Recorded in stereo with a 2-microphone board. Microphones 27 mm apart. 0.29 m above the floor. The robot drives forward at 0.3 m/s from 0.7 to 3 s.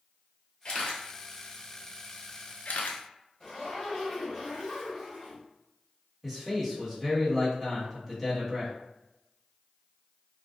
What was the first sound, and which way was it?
A camera shutter, 35° left (ahead or behind).